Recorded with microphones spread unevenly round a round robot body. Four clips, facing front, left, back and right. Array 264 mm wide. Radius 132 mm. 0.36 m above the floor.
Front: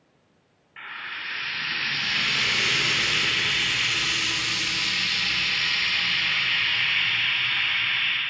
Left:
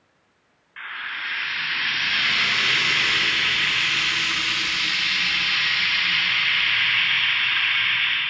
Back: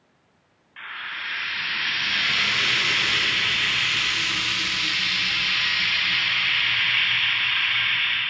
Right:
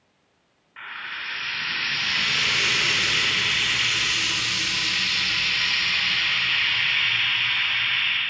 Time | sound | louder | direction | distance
0.8 | frying | left 3 dB, back 2 dB | 35° right | 1.2 m